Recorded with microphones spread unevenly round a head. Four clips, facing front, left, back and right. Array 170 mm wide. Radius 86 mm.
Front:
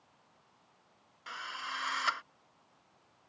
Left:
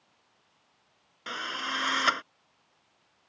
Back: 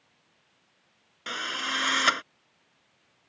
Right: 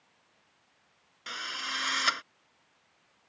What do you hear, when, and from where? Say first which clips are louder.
1.3 s a drill: left 4 dB, back 8 dB; 150° left